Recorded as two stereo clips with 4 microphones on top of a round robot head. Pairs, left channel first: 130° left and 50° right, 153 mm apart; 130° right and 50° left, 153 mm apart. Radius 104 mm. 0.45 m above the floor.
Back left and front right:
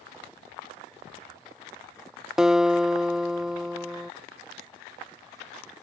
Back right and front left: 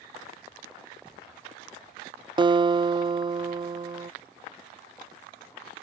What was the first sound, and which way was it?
A guitar, 35° left.